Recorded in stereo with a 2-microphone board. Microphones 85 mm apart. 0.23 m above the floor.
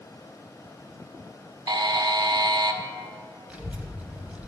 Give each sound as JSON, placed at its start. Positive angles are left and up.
{"t": 1.7, "sound": "a buzzer", "side_deg": -60, "distance_m": 0.5}
{"t": 3.5, "sound": "a child speaking", "side_deg": -15, "distance_m": 0.7}